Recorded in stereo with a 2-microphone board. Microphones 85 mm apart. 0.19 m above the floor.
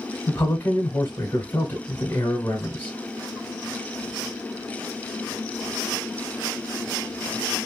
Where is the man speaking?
20° left (ahead or behind), 1.1 m.